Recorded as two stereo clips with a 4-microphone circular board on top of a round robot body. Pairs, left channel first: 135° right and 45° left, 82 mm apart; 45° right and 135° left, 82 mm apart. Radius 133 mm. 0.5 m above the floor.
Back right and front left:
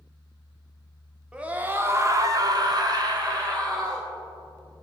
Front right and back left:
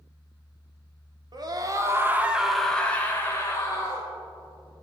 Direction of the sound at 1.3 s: 120° left.